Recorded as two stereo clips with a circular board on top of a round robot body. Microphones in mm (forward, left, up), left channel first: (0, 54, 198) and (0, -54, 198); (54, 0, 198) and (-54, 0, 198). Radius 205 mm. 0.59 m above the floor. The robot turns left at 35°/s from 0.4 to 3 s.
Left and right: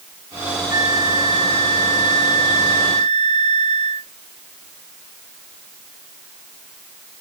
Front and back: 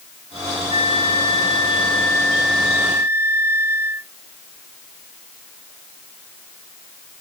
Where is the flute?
30° right; by 4.1 s 110° right.